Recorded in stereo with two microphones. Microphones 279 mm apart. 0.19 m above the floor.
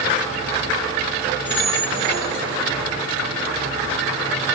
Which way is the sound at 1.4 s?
5° left (ahead or behind).